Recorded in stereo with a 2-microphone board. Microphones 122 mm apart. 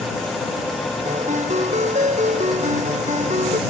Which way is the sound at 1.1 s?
75° right (ahead or behind).